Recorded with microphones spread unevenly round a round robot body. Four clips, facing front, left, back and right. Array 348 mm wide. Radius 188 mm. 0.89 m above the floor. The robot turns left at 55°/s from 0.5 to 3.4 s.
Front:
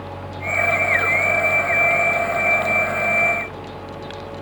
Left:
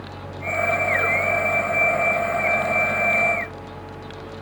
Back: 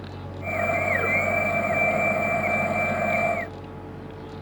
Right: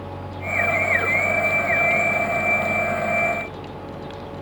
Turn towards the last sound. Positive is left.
No sound to turn to.